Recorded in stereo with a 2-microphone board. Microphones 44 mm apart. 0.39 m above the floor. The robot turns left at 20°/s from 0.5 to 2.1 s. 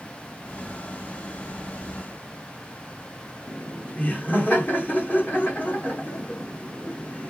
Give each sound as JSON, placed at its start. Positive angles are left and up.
{"t": 3.5, "sound": "laughter", "side_deg": 35, "distance_m": 1.6}